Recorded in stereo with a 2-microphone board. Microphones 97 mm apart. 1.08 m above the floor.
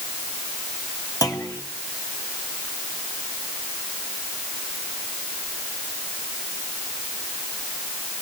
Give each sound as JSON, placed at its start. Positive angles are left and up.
{"t": 1.2, "sound": "a clunk", "side_deg": 40, "distance_m": 3.0}